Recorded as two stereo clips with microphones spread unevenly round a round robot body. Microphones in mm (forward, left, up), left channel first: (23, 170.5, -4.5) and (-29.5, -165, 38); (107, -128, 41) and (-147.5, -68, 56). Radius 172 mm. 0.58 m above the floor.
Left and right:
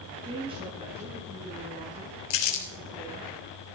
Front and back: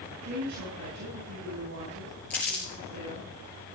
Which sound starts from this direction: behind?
A woman speaking, at 0.2 s.